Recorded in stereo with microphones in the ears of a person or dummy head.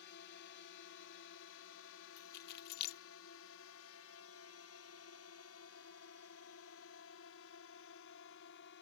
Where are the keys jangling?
60° left (ahead or behind).